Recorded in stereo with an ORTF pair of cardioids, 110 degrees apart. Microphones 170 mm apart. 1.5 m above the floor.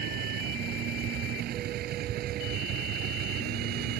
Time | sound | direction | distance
0.0 | a vehicle | 70° right | ?